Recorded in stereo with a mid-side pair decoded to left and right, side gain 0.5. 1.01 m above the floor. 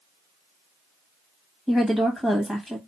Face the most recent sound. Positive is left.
turn(degrees=0)